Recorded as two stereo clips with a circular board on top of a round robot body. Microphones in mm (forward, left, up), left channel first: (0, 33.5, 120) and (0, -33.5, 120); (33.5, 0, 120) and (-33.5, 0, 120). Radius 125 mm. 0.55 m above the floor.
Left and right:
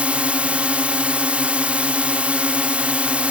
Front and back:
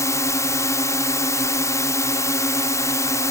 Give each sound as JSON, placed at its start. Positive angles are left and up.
{"t": 0.0, "sound": "a drone", "azimuth_deg": -20}